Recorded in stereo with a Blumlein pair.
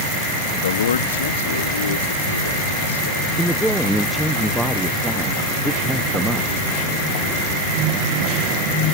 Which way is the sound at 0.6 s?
65° left.